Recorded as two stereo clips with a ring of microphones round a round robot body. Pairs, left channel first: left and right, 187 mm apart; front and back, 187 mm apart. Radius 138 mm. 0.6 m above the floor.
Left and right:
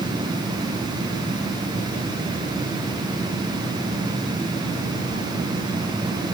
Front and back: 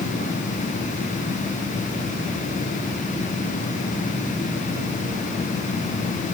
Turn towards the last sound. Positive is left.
No sound to turn to.